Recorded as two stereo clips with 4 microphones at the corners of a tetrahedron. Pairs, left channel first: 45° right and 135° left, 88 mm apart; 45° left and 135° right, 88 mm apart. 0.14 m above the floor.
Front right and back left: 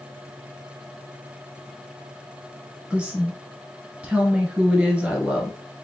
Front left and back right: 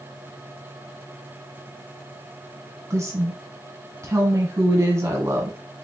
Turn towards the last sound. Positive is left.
turn(degrees=-155)